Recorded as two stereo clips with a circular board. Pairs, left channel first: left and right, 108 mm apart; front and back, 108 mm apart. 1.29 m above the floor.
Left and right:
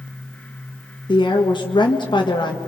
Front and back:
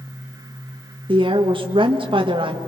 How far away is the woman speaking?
About 1.6 m.